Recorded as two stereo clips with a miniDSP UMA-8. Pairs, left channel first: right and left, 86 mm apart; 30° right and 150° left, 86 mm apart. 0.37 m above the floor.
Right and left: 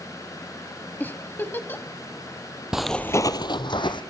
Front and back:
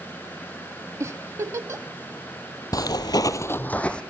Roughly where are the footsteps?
Ahead.